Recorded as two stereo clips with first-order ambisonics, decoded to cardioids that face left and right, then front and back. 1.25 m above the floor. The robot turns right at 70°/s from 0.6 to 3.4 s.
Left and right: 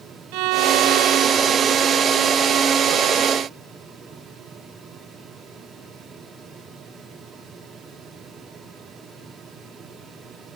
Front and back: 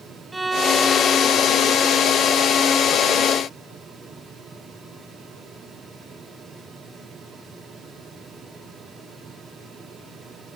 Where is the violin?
100° right; by 2.4 s 25° left.